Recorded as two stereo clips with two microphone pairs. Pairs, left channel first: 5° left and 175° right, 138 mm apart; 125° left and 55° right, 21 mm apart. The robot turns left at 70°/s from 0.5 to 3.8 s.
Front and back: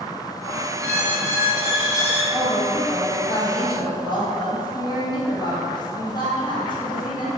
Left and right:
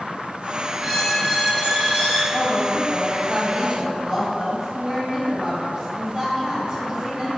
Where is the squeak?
25° left, 1.2 m; by 2.2 s 75° right, 1.2 m.